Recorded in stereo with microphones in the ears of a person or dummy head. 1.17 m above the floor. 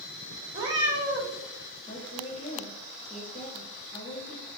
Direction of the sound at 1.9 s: 35° left (ahead or behind).